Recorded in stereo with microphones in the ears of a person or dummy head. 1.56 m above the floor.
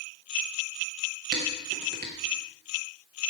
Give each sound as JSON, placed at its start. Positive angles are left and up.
{"t": 1.3, "sound": "dishes clattering", "side_deg": -35, "distance_m": 0.9}